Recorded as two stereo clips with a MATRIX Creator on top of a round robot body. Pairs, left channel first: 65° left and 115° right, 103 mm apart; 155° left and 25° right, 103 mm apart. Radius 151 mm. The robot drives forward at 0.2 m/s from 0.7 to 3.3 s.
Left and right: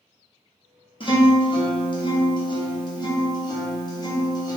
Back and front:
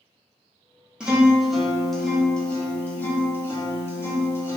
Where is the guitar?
55° left, 1.0 m; by 4.6 s 95° left, 1.0 m.